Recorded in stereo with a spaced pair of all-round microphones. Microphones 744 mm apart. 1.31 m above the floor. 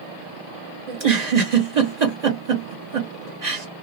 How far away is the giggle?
About 1.2 m.